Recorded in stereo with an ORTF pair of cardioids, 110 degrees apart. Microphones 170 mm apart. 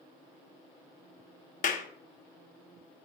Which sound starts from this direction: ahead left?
A clap, at 1.6 s.